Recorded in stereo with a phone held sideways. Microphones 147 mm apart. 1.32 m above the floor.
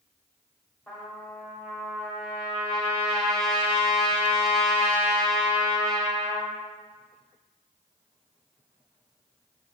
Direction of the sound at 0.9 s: 5° left (ahead or behind).